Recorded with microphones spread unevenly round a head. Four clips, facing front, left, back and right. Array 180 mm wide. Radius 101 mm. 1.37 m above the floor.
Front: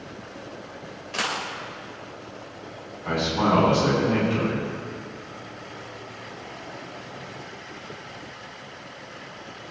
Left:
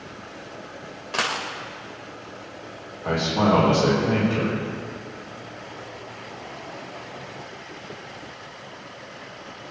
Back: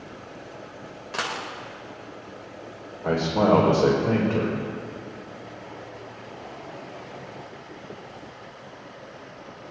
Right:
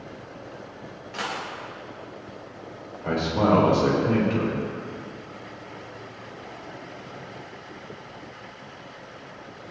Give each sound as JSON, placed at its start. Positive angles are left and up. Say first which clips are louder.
{"t": 1.1, "sound": "a dropped coin", "louder": "left 4 dB, front 1 dB", "azimuth_deg": 125, "distance_m": 1.6}
{"t": 3.0, "sound": "a man speaking", "louder": "left 1 dB, back 3 dB", "azimuth_deg": 180, "distance_m": 4.5}